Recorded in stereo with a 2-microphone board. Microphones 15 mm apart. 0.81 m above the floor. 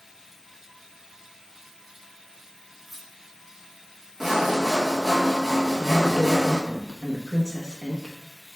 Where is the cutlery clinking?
10° right (ahead or behind), 0.8 m.